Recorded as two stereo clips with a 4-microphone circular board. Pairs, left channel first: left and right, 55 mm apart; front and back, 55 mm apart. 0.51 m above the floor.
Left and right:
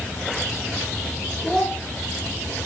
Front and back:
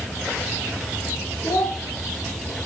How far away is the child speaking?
About 1.3 m.